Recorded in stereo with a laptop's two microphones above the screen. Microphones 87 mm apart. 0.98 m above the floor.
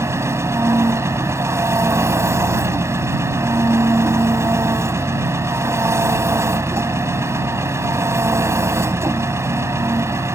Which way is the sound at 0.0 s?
35° right (ahead or behind).